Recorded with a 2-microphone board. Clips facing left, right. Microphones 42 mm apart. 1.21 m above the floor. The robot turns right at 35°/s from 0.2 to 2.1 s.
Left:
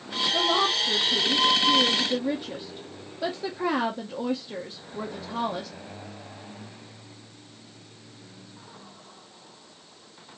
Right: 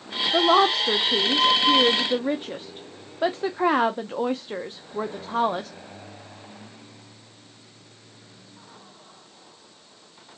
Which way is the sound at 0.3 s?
75° right (ahead or behind).